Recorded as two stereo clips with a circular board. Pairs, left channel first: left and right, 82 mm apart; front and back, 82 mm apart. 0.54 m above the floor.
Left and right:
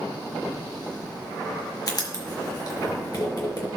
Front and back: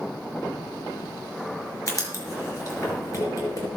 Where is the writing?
50° left, 4.5 m.